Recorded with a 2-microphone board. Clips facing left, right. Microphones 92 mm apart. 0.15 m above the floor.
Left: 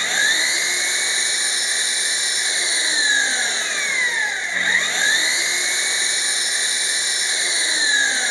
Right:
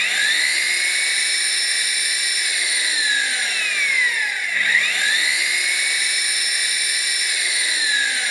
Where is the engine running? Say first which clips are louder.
Left 1 dB; 25° left (ahead or behind), 1.0 m.